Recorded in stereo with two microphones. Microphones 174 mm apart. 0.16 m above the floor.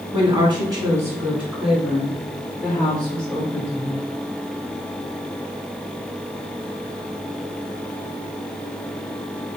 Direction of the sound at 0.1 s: 30° right (ahead or behind).